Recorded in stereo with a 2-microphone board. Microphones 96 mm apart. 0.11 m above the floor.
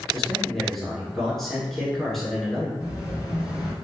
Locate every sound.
0.1 s a man speaking: 5° left (ahead or behind), 1.2 m
2.8 s an explosion: 10° right (ahead or behind), 1.2 m